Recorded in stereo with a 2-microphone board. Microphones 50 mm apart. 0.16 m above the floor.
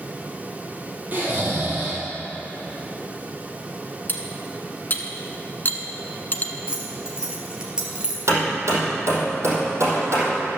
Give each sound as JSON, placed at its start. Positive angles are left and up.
{"t": 1.1, "sound": "snoring", "side_deg": -40, "distance_m": 3.5}
{"t": 4.1, "sound": "cutlery clinking", "side_deg": 40, "distance_m": 1.0}
{"t": 6.7, "sound": "keys jangling", "side_deg": -20, "distance_m": 2.5}
{"t": 8.3, "sound": "hammering", "side_deg": -65, "distance_m": 4.0}